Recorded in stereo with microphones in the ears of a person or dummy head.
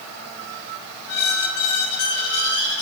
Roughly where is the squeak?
Left.